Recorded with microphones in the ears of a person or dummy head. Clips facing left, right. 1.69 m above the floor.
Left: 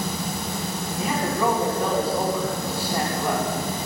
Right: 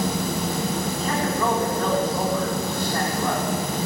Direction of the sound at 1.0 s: 10° left (ahead or behind).